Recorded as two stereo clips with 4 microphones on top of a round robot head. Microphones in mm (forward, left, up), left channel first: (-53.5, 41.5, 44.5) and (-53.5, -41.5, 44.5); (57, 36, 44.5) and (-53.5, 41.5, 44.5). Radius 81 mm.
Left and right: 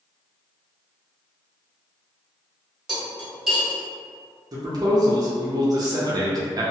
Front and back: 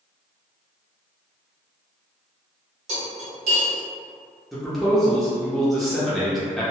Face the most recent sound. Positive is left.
turn(degrees=-90)